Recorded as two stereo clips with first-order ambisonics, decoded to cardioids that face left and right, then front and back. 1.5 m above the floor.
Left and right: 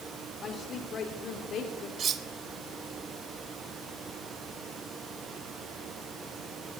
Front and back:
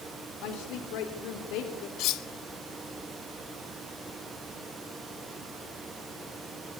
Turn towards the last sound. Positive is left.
turn(degrees=-30)